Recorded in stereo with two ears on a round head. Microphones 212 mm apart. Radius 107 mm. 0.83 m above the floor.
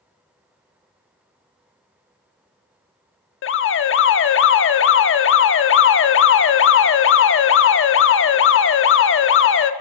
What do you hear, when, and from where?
3.4 s an alarm: 55° left (ahead or behind), 1.0 m